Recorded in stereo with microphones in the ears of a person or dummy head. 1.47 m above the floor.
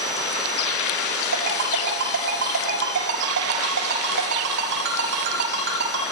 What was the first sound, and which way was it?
A ringtone, 60° right (ahead or behind).